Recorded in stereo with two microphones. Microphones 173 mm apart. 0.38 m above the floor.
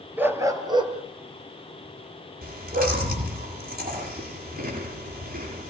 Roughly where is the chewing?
Right.